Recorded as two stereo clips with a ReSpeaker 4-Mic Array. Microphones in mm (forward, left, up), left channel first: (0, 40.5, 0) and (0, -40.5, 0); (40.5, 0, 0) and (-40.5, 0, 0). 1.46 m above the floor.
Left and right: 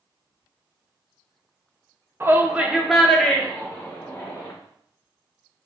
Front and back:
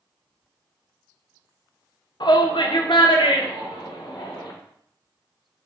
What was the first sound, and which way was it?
A shout, 25° right.